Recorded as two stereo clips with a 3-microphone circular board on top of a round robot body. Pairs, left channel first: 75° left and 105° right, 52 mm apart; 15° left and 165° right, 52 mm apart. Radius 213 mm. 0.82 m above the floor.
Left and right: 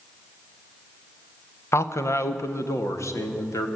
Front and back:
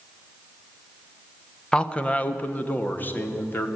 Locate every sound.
1.7 s a man speaking: 85° left, 1.4 m; by 3.7 s 60° left, 3 m